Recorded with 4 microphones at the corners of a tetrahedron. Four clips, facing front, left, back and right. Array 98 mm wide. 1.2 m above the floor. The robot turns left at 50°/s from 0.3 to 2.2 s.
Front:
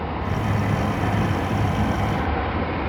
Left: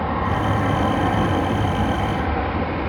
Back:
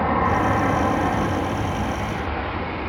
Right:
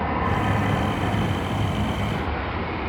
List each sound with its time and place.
0.0 s an aircraft: 165° left; by 2.9 s 70° left